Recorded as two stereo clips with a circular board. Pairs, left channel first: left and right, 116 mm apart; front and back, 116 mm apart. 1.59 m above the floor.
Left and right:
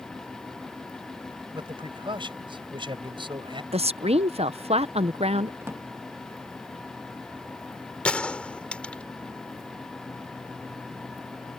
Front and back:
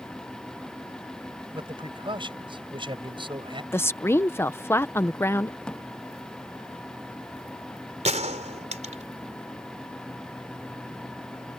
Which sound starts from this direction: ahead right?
A drawer, at 5.6 s.